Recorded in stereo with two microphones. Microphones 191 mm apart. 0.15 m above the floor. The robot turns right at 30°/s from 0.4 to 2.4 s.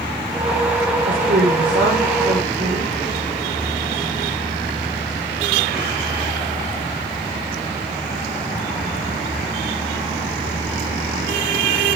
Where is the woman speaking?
65° right, 10 m; by 2.9 s 25° right, 10 m.